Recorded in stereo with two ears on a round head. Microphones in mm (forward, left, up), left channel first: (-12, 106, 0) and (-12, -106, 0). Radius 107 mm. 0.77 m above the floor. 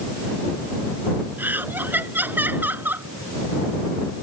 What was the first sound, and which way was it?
Laughter, 10° right (ahead or behind).